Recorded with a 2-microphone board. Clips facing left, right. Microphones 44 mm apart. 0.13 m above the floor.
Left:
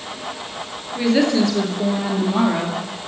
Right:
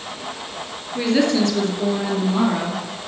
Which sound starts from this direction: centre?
A woman speaking, at 0.9 s.